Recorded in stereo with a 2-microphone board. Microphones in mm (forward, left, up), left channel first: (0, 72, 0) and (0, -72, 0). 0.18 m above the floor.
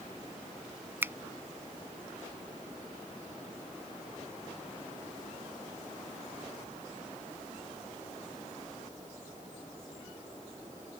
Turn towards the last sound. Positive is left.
turn(degrees=-15)  # may be behind; listen again after turning